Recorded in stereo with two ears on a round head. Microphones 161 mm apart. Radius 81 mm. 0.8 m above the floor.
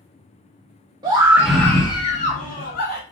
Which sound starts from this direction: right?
A scream, at 1.0 s.